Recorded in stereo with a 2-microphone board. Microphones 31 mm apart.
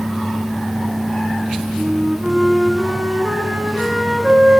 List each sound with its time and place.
1.8 s a flute: 50° right (ahead or behind), 5 m